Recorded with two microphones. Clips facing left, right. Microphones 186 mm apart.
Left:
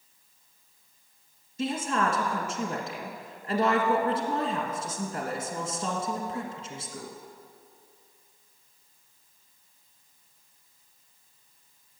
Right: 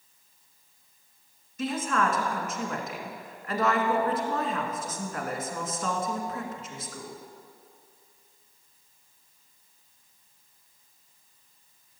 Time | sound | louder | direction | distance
1.6 | a woman speaking | even | 30° left (ahead or behind) | 1.6 m